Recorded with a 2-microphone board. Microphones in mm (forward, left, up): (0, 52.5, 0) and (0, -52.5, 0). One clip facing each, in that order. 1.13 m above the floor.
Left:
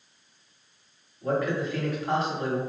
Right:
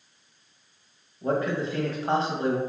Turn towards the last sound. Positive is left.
turn(degrees=-30)  # may be behind; listen again after turning